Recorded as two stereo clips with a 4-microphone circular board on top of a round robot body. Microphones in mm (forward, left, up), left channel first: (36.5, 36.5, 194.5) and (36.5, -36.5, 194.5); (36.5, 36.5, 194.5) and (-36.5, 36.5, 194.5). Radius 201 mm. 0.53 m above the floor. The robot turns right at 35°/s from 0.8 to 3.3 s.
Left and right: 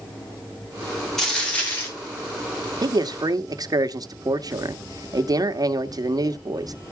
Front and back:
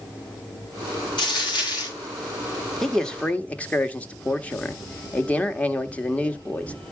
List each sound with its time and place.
1.2 s a dropped coin: 5° left, 4 m; by 1.9 s 30° left, 4 m
2.8 s a man speaking: 85° right, 1.4 m; by 6.8 s 70° right, 1.4 m